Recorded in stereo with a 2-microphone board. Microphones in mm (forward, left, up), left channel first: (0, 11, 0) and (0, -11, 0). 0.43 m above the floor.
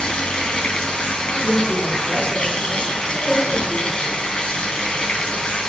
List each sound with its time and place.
0.0 s running water: 45° left (ahead or behind), 3.5 m
1.3 s a woman speaking: 35° left (ahead or behind), 6.5 m